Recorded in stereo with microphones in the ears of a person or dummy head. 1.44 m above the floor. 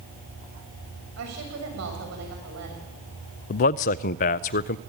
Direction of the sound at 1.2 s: 70° right (ahead or behind).